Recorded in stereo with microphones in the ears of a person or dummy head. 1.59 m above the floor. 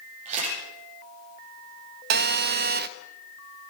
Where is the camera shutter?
40° right (ahead or behind), 8.5 m.